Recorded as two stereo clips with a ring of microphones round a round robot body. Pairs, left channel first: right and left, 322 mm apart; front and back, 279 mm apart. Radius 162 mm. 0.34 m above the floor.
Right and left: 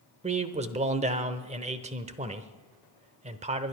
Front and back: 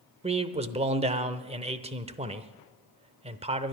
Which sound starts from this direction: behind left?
A man speaking, at 0.2 s.